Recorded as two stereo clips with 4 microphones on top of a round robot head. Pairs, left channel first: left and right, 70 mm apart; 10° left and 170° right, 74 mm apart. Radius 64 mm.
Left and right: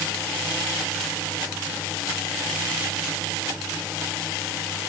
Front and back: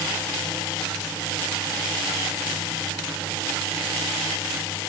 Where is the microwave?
I don't hear a microwave.